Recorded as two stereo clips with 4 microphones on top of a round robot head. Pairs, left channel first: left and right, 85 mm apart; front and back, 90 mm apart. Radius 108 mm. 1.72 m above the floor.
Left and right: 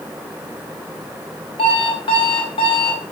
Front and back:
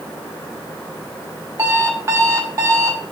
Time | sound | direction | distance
1.6 | an alarm clock | 125° left | 4.5 m